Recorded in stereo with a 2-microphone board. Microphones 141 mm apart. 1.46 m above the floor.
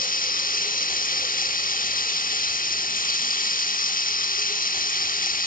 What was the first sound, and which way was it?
Running water, 70° left (ahead or behind).